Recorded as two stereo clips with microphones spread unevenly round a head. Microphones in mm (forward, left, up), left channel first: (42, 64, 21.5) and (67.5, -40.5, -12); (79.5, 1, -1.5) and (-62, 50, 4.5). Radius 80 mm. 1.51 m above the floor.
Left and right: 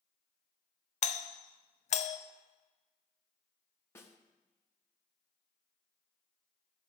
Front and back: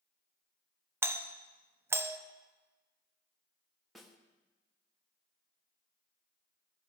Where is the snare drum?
75° left, 1.0 m.